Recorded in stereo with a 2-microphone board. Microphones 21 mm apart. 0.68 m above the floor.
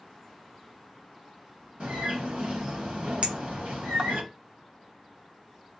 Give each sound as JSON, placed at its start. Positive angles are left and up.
{"t": 1.8, "sound": "a bird", "side_deg": -55, "distance_m": 1.8}
{"t": 3.2, "sound": "a clink", "side_deg": -55, "distance_m": 0.7}